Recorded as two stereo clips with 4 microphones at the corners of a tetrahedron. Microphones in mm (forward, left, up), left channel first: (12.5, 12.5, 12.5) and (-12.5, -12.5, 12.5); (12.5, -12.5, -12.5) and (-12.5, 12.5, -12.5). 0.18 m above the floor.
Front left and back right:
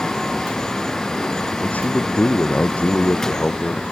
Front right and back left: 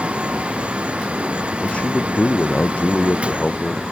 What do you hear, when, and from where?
1.6 s a man speaking: 10° left